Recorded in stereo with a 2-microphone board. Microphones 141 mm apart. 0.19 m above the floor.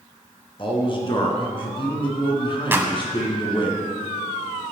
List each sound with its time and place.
0.6 s a man speaking: 35° left (ahead or behind), 2.5 m
2.7 s a clap: 15° right (ahead or behind), 1.1 m